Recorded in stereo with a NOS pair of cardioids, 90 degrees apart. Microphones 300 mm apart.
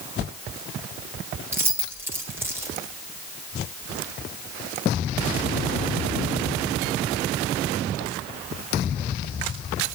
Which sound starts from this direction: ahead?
Keys jangling, at 1.5 s.